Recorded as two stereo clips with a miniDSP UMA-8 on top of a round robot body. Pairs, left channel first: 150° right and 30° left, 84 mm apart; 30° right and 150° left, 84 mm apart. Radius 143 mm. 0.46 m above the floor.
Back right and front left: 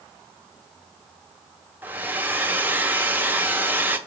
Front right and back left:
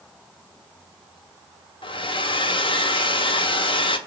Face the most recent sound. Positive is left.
turn(degrees=-40)